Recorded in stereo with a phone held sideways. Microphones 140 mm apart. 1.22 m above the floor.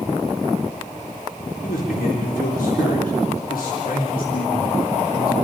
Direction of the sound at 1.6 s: 85° left.